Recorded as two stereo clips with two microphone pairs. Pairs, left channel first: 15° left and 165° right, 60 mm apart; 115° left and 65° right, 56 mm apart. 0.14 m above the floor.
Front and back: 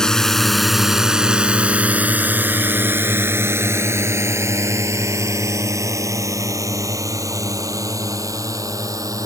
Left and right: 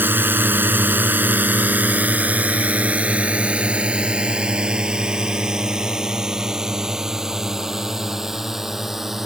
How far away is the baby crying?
I don't hear a baby crying.